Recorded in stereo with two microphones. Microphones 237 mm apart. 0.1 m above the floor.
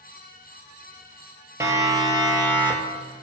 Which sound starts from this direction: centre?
A siren, at 1.6 s.